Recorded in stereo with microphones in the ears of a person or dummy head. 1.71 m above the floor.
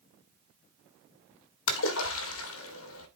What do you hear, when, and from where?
1.7 s a splash: 75° left (ahead or behind), 1.7 m